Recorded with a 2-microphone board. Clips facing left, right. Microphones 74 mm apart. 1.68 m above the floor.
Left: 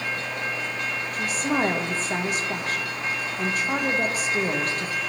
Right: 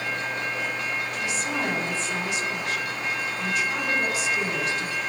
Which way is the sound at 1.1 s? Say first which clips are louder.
Left 3 dB; 45° left (ahead or behind).